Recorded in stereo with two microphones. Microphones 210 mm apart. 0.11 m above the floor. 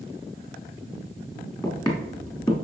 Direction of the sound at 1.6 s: 20° left (ahead or behind).